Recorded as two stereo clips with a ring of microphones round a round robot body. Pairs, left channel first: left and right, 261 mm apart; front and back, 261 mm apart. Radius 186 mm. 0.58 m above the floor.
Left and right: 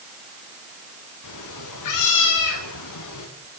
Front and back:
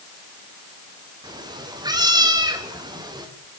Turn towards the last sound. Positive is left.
turn(degrees=105)